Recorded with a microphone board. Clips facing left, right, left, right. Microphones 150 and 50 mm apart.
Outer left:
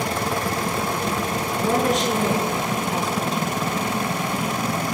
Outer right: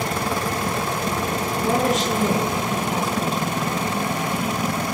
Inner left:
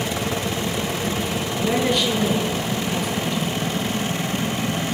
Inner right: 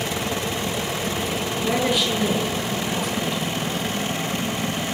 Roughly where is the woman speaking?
Centre.